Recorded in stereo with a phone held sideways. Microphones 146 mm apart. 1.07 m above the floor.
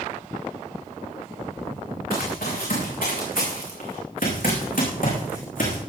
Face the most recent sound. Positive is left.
turn(degrees=70)  # may be behind; listen again after turning